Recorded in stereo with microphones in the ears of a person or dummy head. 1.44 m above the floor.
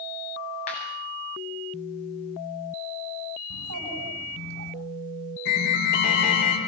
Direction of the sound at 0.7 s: 35° left (ahead or behind).